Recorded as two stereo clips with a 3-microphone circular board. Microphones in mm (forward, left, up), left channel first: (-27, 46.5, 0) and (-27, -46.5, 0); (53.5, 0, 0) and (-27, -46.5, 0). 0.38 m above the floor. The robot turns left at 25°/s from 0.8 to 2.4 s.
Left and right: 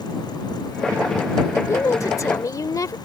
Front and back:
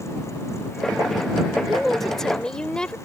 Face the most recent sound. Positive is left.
turn(degrees=105)